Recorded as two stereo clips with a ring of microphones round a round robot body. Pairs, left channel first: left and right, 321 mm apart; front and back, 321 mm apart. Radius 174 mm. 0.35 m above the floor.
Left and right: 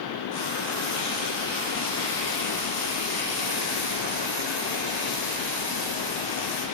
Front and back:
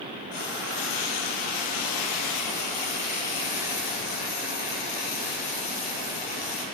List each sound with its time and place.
0.3 s frying: 30° left, 3 m